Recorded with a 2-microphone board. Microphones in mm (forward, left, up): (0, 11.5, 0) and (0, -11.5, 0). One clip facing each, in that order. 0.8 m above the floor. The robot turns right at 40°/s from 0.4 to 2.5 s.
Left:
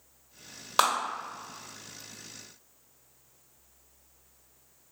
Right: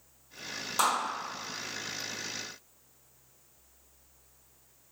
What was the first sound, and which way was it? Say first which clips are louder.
A clap: left 3 dB; 45° left (ahead or behind).